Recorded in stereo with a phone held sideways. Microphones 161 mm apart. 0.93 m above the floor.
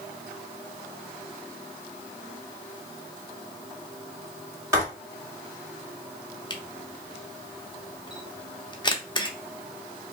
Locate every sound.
4.7 s writing: 20° right (ahead or behind), 2.5 m
6.5 s a camera shutter: 30° left (ahead or behind), 0.7 m